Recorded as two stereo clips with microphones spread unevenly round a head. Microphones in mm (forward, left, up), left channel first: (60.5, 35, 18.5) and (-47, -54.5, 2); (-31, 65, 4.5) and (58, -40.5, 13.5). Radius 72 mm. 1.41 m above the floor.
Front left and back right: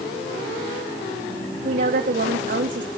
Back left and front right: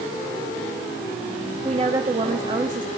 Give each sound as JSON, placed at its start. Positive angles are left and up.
{"t": 1.6, "sound": "a woman speaking", "azimuth_deg": -110, "distance_m": 1.2}